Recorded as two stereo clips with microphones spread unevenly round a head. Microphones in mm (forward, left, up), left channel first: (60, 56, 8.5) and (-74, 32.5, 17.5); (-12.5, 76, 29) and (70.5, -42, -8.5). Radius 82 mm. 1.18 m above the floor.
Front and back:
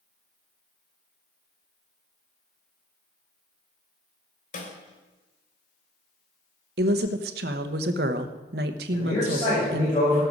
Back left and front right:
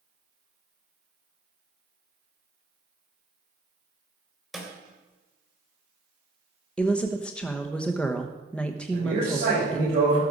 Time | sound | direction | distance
4.5 | a snare drum | 35° left | 2.5 m
6.8 | a woman speaking | 150° right | 1.0 m
8.9 | a man speaking | 55° right | 6.5 m